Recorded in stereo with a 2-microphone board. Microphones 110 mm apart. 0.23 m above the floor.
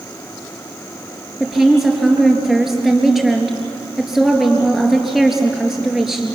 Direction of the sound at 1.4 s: 5° right (ahead or behind).